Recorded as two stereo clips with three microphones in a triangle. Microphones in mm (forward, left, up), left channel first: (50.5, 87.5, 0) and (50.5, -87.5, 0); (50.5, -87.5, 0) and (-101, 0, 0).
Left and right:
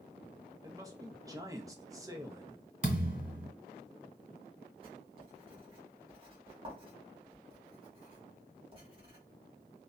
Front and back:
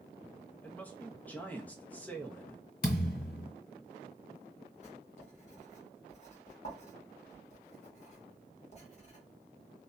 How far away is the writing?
About 1.2 m.